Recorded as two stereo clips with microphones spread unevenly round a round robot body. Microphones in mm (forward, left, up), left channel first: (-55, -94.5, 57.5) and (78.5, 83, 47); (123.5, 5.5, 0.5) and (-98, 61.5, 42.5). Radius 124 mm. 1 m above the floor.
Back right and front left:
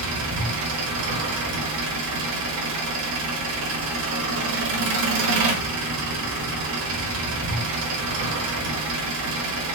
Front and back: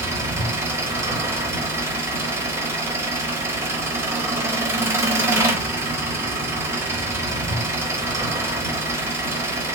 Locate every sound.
0.0 s an engine running: 90° left, 0.9 m